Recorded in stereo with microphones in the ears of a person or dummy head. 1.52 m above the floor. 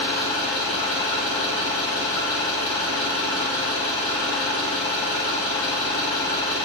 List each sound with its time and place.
0.0 s an engine running: 25° left (ahead or behind), 3 m